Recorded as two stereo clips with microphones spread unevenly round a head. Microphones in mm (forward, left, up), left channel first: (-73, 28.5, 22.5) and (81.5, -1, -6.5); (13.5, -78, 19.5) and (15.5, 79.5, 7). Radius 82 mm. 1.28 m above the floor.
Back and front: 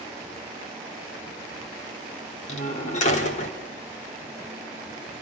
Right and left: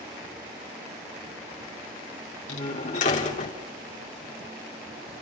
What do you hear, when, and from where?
2.5 s a door slam: 140° right, 3 m